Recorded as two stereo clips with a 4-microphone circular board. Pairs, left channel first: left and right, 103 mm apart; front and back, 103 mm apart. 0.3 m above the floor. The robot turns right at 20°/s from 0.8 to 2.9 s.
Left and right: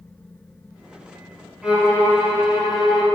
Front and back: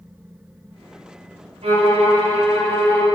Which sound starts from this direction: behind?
A violin, at 1.6 s.